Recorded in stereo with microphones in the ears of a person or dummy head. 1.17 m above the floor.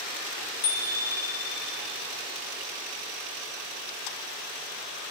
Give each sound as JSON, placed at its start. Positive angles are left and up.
{"t": 0.6, "sound": "a bicycle bell", "side_deg": 40, "distance_m": 2.5}